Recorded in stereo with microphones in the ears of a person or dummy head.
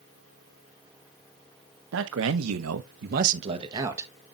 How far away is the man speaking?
About 1.2 m.